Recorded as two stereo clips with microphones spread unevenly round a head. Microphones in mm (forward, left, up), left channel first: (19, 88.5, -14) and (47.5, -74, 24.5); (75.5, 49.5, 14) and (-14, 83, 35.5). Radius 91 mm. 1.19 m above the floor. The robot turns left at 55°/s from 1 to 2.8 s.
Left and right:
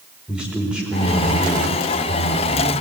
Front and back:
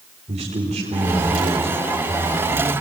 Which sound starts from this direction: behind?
A man speaking, at 0.3 s.